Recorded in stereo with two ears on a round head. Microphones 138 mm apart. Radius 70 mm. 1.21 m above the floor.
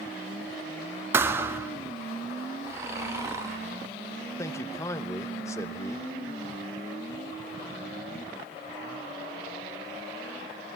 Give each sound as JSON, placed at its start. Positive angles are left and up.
{"t": 1.1, "sound": "a thud", "side_deg": -15, "distance_m": 0.6}
{"t": 2.6, "sound": "snoring", "side_deg": -20, "distance_m": 2.0}
{"t": 4.4, "sound": "a man speaking", "side_deg": 20, "distance_m": 0.9}